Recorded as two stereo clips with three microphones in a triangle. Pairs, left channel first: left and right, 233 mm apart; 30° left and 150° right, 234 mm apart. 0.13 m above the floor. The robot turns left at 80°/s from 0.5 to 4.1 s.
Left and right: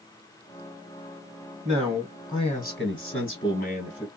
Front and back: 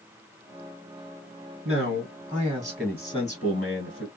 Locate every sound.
1.6 s a man speaking: 150° right, 1.9 m; by 4.1 s 15° left, 1.9 m